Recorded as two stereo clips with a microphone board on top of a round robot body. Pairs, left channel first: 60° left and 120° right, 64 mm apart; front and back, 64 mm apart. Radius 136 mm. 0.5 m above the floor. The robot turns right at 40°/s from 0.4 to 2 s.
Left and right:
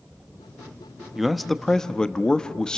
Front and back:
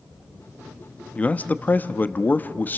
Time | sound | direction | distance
1.1 | a man speaking | 40° right | 0.8 m